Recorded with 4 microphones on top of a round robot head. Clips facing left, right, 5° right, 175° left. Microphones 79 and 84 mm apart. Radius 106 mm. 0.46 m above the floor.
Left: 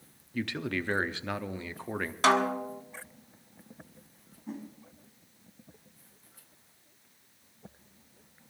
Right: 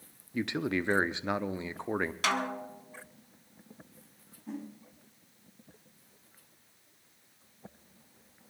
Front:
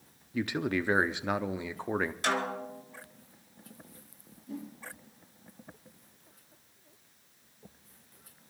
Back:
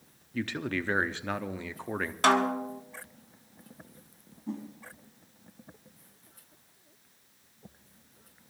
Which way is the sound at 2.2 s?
145° left.